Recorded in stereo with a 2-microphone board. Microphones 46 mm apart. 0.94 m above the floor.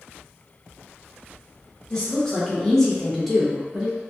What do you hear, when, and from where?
1.9 s a woman speaking: 20° left (ahead or behind), 1.0 m; by 4.0 s 15° right (ahead or behind), 0.7 m